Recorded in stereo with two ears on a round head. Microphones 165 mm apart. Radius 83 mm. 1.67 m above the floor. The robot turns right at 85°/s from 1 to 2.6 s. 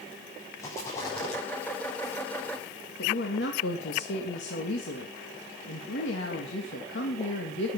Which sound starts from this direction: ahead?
A rattle, at 0.6 s.